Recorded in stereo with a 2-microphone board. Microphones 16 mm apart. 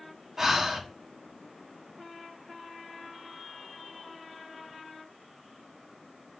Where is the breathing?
30° right (ahead or behind), 1.5 m.